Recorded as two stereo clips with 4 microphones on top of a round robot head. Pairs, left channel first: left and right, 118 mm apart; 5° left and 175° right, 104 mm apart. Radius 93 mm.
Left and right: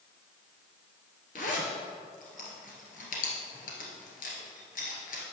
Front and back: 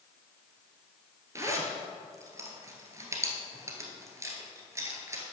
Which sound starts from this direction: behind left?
A zipper, at 1.4 s.